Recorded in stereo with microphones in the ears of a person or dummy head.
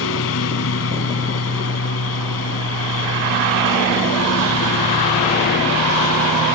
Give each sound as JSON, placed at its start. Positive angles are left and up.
{"t": 0.0, "sound": "a lawn mower", "side_deg": 75}